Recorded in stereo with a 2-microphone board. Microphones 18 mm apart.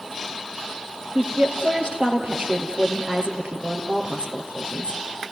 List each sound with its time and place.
1.1 s a woman speaking: 70° right (ahead or behind), 3.5 m